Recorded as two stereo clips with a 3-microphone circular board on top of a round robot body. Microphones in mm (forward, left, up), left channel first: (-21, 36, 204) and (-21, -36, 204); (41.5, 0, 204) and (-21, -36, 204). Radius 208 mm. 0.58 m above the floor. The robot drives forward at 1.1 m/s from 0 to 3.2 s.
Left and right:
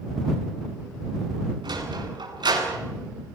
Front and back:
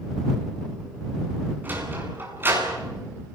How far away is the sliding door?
About 9.5 m.